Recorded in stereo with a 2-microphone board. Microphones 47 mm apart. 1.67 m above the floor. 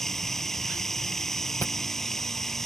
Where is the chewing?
40° left (ahead or behind).